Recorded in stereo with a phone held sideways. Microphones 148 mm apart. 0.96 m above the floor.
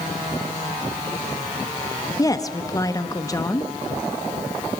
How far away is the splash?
I don't hear a splash.